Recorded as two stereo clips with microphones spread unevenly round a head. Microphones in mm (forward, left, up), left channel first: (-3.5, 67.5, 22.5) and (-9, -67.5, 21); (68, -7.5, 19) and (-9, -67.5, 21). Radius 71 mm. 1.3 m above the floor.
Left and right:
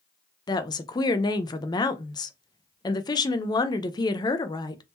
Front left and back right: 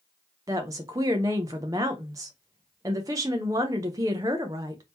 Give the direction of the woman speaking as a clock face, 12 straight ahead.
7 o'clock.